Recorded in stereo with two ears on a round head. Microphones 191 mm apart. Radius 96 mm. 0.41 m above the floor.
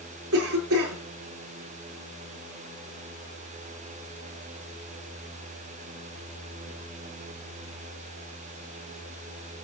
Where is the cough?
80° right, 8 m.